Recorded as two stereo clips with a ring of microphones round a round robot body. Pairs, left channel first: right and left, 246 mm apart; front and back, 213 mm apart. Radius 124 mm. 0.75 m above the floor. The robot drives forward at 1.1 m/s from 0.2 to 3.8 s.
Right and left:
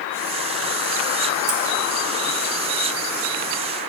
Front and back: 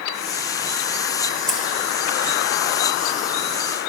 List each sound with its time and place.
1.5 s scissors: 85° left, 1.8 m; by 1.6 s 90° left, 1.8 m